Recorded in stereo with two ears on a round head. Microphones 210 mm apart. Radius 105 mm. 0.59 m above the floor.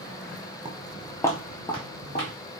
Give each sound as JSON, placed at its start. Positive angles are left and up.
{"t": 0.7, "sound": "footsteps", "side_deg": -20, "distance_m": 0.6}